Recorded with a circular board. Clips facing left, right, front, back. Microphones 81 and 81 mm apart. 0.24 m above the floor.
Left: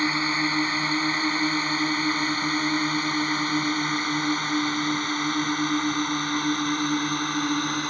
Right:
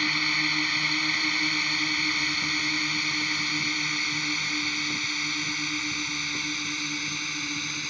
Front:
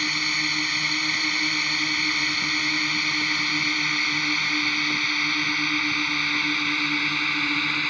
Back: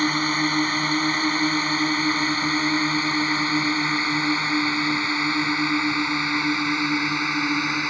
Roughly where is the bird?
No bird in this recording.